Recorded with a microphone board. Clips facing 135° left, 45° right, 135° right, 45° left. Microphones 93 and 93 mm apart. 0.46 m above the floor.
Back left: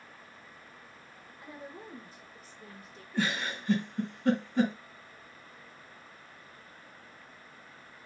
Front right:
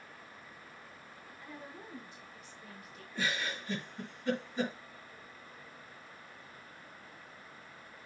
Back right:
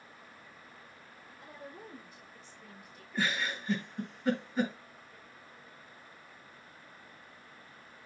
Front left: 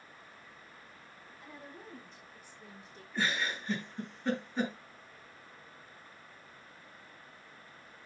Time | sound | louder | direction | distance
1.4 | a woman speaking | back left 3 dB, back right 2 dB | straight behind | 2 m
3.1 | a giggle | back left 4 dB, even | 140° left | 4.5 m